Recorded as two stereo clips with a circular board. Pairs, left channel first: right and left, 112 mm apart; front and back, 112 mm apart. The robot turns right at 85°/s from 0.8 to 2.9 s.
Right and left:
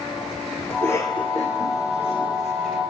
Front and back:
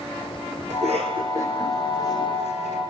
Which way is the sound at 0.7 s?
165° right.